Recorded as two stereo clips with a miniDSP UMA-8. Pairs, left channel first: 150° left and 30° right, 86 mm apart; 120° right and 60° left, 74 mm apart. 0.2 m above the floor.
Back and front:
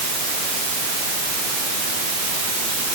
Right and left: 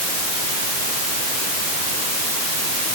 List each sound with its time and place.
Only background noise.